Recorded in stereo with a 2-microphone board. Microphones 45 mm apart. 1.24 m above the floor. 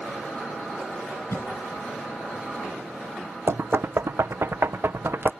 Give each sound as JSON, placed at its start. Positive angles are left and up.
{"t": 1.3, "sound": "a cough", "side_deg": 85}
{"t": 3.5, "sound": "knocking", "side_deg": -60}